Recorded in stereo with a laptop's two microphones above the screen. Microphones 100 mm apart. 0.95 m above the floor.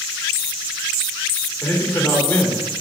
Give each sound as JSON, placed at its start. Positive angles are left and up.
{"t": 1.6, "sound": "a man speaking", "side_deg": 20, "distance_m": 1.7}